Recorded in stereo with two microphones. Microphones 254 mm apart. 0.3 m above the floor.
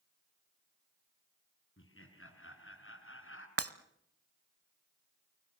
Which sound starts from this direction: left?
Laughter, at 1.8 s.